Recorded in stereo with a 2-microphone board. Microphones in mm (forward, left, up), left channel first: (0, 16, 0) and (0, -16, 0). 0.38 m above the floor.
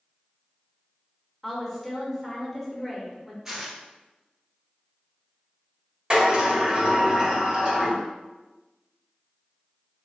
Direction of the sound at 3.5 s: 20° right (ahead or behind).